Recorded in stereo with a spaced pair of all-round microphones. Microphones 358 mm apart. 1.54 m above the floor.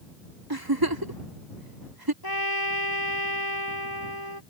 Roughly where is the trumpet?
Left.